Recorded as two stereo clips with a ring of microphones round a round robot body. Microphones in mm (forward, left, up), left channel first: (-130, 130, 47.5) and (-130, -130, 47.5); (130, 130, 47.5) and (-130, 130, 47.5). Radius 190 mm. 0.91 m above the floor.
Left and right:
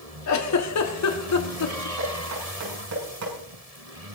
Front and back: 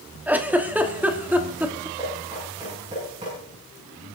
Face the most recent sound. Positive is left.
turn(degrees=-105)